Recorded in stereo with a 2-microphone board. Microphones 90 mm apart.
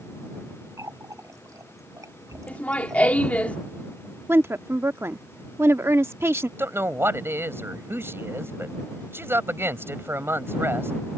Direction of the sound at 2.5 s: 15° left (ahead or behind).